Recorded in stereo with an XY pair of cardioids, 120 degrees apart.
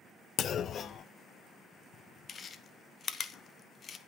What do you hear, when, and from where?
0.4 s a clunk: 45° left, 0.5 m
2.3 s chewing: 35° left, 0.9 m